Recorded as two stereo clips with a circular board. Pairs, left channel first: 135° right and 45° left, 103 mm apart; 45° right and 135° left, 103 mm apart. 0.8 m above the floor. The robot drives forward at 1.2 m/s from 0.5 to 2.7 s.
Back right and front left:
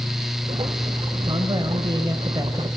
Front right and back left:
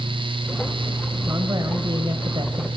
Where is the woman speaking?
75° left, 4 m; by 2.7 s 100° left, 4 m.